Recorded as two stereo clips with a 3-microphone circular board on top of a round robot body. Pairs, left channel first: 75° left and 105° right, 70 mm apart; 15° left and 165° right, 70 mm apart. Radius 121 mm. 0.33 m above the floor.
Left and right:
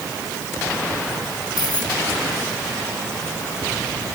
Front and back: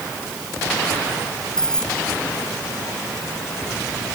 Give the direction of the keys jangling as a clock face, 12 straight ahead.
9 o'clock.